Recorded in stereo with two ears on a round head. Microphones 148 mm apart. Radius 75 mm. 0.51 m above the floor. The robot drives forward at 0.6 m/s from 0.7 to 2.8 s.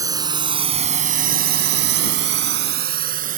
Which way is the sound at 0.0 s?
20° right (ahead or behind).